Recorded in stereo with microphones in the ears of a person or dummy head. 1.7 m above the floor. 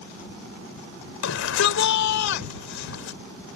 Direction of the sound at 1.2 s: 80° left.